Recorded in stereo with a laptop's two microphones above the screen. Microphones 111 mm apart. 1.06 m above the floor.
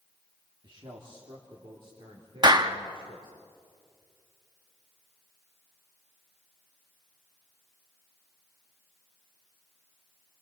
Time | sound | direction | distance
0.6 | a man speaking | 45° right (ahead or behind) | 2 m
2.4 | a clap | 40° right (ahead or behind) | 1.1 m